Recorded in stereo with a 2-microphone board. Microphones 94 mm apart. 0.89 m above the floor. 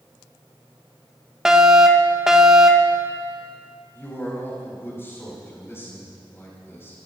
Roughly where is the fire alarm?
Centre.